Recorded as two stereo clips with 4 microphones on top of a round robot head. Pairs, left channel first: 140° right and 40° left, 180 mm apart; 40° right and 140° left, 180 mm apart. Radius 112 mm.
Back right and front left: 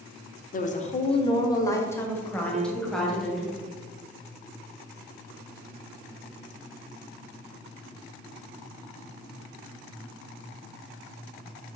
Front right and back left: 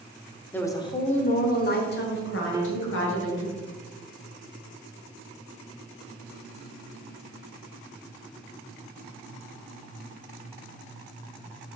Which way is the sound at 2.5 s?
75° left.